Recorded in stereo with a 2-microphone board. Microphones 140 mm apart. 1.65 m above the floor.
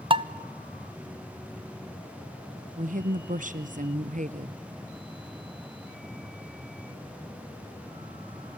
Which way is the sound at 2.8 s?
65° right (ahead or behind).